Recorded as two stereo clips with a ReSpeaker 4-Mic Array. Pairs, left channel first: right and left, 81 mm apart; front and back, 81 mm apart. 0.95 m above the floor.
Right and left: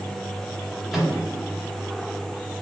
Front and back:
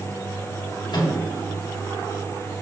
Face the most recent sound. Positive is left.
turn(degrees=0)